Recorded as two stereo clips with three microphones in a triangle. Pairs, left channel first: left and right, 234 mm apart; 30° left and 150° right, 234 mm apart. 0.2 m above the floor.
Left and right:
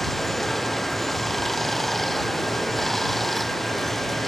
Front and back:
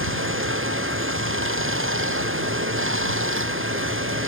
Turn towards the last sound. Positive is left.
turn(degrees=180)